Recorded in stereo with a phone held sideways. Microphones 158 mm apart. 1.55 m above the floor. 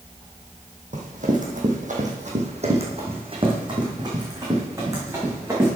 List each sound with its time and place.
0.9 s running footsteps: 55° right (ahead or behind), 3 m; by 5.7 s 15° right (ahead or behind), 5.5 m